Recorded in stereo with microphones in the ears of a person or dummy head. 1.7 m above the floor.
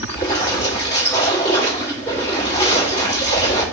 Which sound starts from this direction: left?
A splash, at 0.1 s.